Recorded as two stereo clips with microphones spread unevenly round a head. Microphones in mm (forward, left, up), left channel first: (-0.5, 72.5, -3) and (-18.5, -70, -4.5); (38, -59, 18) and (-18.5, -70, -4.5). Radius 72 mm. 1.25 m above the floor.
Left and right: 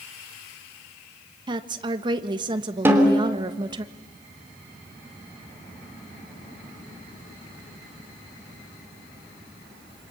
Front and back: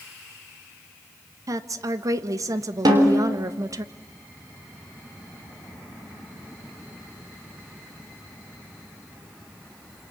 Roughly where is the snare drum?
Behind.